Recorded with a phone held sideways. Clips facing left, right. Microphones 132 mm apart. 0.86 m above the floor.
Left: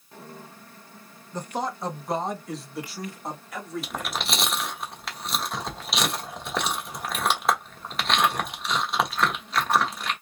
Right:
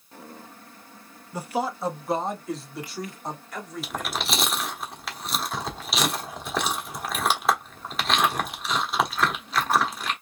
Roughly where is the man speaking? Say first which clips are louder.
Right 2 dB; centre.